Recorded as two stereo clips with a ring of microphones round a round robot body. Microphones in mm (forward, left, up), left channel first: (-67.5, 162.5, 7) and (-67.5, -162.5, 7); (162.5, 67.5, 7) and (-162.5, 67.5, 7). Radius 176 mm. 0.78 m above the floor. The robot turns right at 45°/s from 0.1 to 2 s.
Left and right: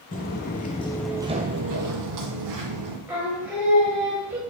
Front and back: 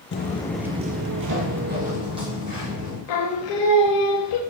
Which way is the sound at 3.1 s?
5° right.